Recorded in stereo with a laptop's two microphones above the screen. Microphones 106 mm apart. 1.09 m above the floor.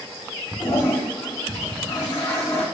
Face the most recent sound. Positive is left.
turn(degrees=65)  # may be behind; listen again after turning